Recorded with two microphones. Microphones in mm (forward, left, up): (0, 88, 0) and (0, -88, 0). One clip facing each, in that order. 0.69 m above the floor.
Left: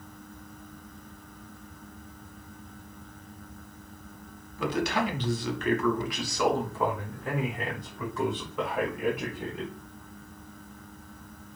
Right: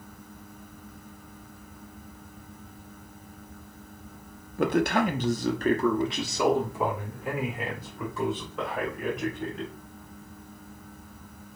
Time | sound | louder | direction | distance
4.6 | a man speaking | right 4 dB | 55° right (ahead or behind) | 0.9 m